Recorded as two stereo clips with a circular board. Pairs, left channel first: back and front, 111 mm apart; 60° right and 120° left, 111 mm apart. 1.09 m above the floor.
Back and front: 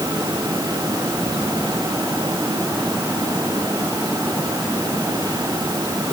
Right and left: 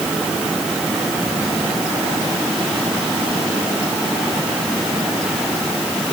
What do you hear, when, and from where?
Only background noise.